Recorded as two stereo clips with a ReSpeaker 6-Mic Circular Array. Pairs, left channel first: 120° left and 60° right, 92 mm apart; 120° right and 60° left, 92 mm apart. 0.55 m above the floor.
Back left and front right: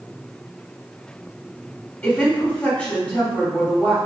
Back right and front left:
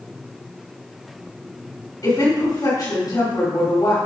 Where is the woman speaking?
170° right, 2.5 m.